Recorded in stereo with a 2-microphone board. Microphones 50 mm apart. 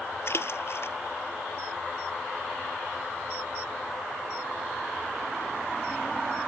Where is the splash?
55° left (ahead or behind).